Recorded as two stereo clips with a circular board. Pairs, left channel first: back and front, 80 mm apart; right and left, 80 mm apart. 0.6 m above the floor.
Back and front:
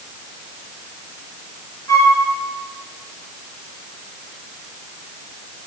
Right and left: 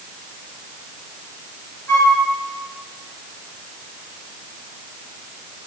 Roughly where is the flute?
Behind right.